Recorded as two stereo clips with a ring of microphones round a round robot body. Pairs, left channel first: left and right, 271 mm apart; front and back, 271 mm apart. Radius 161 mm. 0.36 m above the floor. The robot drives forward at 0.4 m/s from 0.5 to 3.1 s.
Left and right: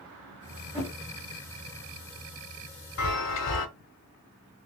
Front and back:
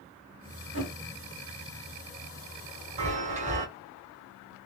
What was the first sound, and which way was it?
A whoosh, 5° right.